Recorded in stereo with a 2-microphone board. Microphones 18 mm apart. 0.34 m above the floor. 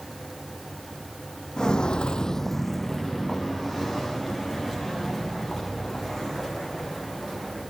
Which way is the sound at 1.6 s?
40° left (ahead or behind).